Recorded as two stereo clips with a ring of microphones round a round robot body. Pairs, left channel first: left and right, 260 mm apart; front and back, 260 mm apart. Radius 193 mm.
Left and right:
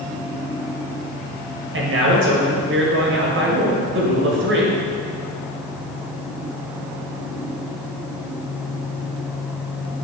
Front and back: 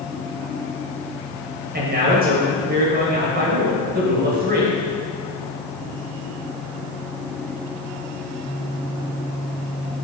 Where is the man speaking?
125° right, 1.5 m.